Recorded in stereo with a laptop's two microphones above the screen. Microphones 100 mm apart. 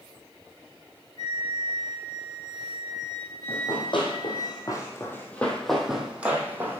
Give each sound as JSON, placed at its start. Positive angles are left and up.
{"t": 1.2, "sound": "a flute", "side_deg": -50, "distance_m": 0.9}
{"t": 3.5, "sound": "running footsteps", "side_deg": 60, "distance_m": 1.8}